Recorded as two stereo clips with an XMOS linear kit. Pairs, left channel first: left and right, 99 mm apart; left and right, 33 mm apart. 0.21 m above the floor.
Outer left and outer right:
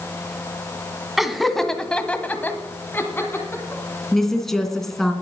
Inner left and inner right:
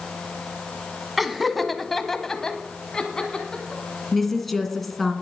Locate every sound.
1.2 s laughter: 5° right (ahead or behind), 1.6 m; by 3.8 s 20° left (ahead or behind), 2.5 m
4.1 s a woman speaking: 5° left (ahead or behind), 2.5 m